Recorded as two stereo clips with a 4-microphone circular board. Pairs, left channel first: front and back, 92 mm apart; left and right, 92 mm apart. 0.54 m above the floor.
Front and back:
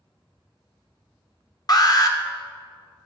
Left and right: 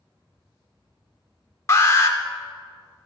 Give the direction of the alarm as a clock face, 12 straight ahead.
11 o'clock.